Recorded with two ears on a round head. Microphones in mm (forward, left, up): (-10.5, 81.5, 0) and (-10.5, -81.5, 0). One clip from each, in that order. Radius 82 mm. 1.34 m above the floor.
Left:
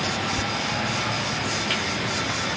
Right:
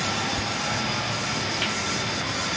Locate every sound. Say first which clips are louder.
0.4 s whispering: left 2 dB; 5° left (ahead or behind), 0.6 m